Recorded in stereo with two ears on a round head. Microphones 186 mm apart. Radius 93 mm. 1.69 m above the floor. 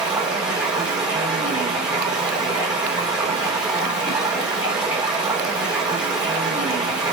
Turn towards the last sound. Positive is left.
turn(degrees=-5)  # may be behind; listen again after turning